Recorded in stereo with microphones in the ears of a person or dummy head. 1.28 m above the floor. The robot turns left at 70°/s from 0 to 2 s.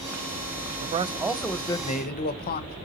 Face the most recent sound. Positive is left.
turn(degrees=140)